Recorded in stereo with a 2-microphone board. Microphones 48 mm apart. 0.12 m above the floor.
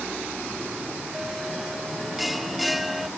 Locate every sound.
1.1 s a bell: centre (ahead or behind)